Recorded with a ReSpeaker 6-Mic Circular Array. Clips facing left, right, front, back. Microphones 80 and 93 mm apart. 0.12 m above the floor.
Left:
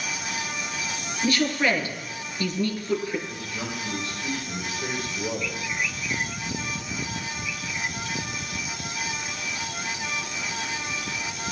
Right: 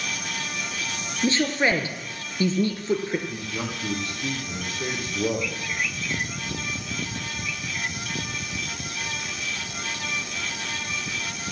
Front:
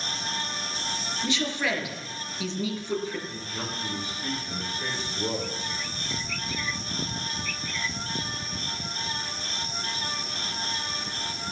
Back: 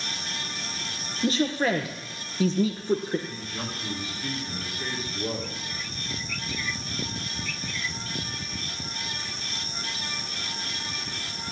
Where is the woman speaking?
145° right, 2.5 m.